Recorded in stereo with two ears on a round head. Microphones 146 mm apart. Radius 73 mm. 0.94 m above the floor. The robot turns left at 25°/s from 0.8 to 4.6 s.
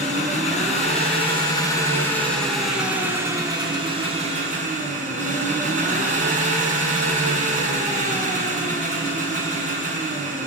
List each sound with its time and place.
0.0 s an engine running: 45° left, 5 m; by 10.5 s 50° right, 5 m